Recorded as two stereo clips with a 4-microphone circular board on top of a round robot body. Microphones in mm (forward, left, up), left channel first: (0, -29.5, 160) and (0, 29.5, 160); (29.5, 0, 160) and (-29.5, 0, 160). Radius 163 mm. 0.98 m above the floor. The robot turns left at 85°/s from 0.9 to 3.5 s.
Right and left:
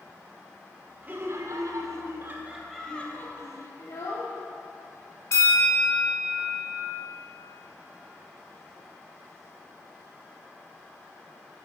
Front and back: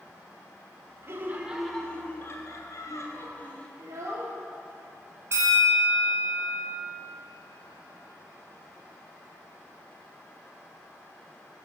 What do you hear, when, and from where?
1.0 s laughter: 145° left, 1.2 m; by 3.7 s 65° right, 1.2 m
3.8 s a child speaking: 135° right, 1.1 m
5.3 s a bell: 130° right, 1.4 m